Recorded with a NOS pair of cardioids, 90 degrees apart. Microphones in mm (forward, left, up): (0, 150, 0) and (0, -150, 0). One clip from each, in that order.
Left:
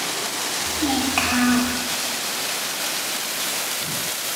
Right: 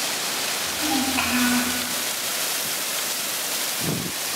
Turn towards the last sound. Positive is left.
turn(degrees=70)